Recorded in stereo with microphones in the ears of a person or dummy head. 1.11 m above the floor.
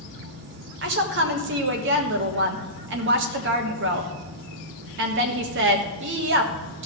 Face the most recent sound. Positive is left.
turn(degrees=-60)  # may be behind; listen again after turning